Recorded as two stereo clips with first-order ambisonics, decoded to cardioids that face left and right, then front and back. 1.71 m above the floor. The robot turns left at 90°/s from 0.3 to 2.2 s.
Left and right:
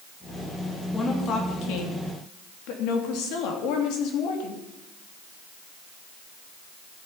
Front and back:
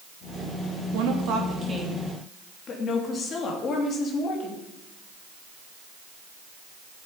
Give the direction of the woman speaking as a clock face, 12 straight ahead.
6 o'clock.